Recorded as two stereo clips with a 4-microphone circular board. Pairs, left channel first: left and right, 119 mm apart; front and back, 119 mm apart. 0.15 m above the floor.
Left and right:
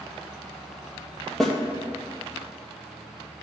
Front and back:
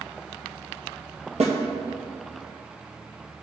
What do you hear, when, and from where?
1.4 s a snare drum: 175° left, 2 m